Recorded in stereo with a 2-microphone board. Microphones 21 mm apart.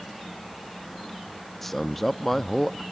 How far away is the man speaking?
About 0.6 m.